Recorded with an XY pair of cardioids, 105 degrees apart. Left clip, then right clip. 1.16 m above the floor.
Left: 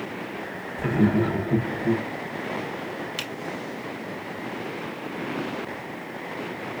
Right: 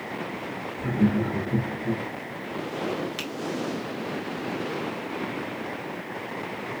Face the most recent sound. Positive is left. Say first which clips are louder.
# left 1 dB
turn(degrees=15)